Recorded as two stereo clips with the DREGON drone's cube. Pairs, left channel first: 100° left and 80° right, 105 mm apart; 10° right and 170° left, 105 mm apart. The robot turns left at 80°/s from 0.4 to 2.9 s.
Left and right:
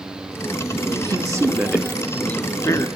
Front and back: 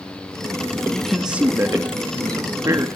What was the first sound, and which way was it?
A man speaking, 80° right.